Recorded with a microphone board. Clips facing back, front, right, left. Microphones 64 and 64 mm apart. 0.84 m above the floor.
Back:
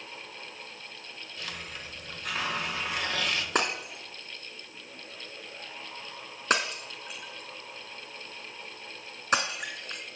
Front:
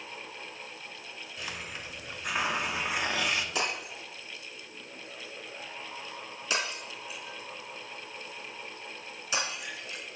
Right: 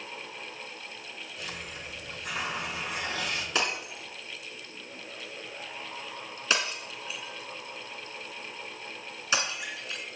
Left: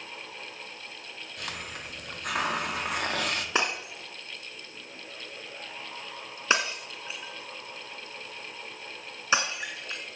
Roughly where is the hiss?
Left.